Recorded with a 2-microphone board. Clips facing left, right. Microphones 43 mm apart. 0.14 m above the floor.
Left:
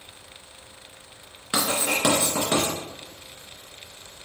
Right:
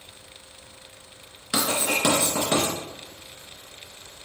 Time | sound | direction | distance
1.5 | writing | 15° left (ahead or behind) | 1.7 m